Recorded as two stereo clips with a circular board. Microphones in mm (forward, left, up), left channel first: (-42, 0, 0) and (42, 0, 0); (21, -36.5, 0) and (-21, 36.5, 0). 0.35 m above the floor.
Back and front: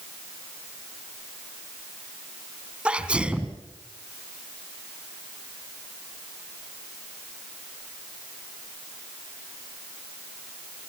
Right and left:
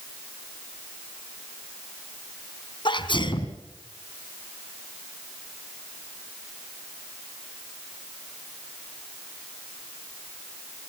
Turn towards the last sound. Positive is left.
turn(degrees=-75)